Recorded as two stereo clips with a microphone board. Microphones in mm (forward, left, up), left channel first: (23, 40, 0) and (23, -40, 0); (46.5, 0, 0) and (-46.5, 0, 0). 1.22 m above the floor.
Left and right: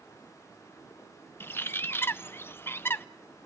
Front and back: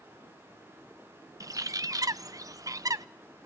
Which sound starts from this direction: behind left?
A bird, at 1.4 s.